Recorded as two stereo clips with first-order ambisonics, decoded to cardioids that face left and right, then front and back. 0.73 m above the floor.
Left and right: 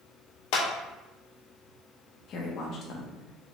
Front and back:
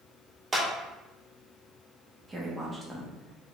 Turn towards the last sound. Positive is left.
turn(degrees=110)